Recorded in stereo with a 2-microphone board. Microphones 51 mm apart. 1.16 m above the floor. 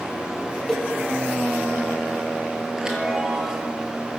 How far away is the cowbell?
About 6 m.